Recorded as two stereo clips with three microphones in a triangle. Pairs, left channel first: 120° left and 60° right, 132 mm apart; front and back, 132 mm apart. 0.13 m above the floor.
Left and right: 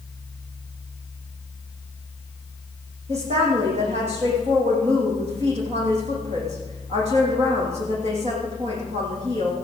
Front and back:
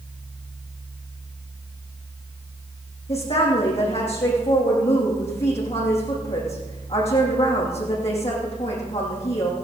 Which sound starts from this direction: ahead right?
A woman speaking, at 3.1 s.